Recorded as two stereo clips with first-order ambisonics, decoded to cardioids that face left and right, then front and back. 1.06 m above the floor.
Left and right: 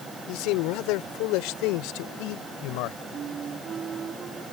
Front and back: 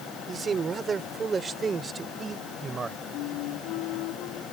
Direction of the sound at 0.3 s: 110° left.